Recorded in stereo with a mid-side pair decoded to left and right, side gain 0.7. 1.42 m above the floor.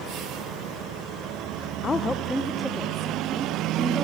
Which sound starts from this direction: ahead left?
A woman speaking, at 1.8 s.